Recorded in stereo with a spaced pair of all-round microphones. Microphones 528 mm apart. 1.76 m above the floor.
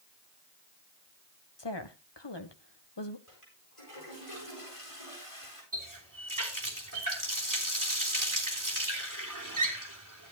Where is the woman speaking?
50° left (ahead or behind), 1.5 m.